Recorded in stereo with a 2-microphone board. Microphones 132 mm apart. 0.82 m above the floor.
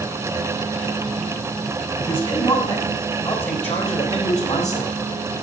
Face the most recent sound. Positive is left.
turn(degrees=65)  # may be behind; listen again after turning